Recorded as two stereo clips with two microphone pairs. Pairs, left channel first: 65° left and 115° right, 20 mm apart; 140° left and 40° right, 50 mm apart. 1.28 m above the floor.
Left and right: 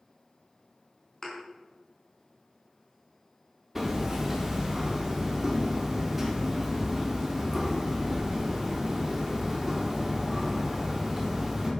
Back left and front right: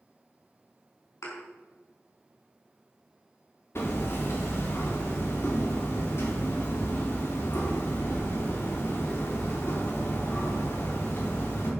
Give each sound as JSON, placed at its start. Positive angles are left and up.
{"t": 1.2, "sound": "a thud", "azimuth_deg": 125, "distance_m": 4.5}
{"t": 3.8, "sound": "hammering", "azimuth_deg": 170, "distance_m": 3.5}